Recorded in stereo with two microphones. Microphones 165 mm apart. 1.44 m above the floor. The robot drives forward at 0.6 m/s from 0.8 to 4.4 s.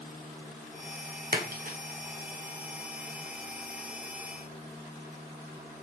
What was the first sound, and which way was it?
A splash, 65° right (ahead or behind).